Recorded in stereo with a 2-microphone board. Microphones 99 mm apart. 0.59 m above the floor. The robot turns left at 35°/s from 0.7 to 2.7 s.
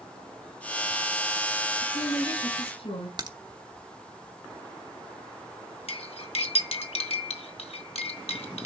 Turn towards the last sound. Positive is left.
turn(degrees=85)